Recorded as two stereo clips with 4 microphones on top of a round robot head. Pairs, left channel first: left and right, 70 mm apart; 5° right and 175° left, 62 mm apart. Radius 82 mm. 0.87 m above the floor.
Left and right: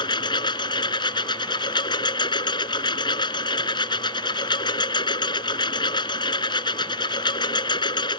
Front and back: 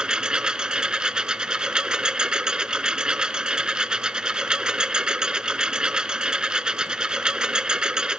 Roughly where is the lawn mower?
Left.